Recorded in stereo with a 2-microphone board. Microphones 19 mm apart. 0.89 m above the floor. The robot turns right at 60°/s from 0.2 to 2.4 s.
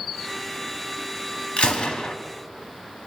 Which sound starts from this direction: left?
A gunshot, at 1.6 s.